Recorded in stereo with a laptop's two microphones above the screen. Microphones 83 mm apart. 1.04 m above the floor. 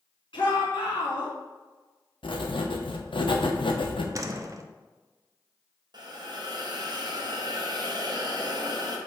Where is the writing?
85° left, 0.8 m.